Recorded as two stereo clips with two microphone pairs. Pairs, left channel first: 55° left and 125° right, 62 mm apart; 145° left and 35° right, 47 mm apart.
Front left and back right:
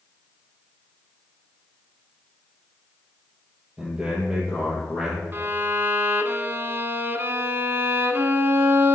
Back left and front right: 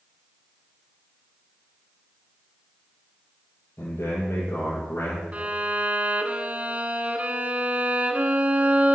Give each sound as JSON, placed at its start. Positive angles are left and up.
{"t": 3.8, "sound": "a man speaking", "azimuth_deg": 170, "distance_m": 3.5}
{"t": 5.3, "sound": "a violin", "azimuth_deg": -85, "distance_m": 0.7}